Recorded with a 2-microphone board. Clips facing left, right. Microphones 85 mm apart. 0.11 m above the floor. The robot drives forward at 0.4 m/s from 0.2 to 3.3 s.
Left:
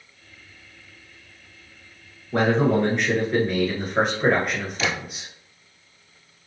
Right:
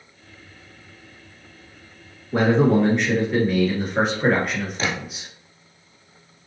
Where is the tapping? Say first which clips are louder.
Even; 40° right (ahead or behind), 1.1 m.